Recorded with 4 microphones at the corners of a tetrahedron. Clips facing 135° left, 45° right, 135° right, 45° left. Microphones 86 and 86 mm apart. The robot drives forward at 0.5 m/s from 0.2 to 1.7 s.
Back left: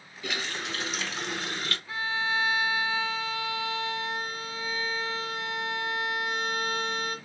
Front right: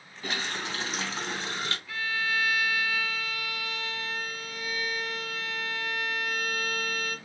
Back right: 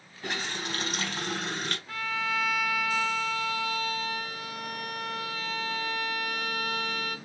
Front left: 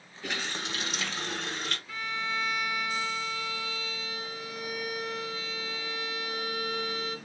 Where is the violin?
165° right, 0.9 m.